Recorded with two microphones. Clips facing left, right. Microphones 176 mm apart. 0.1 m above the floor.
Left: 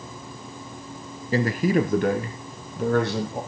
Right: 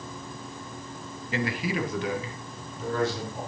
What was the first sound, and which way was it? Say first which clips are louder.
A man speaking: left 8 dB; 35° left (ahead or behind).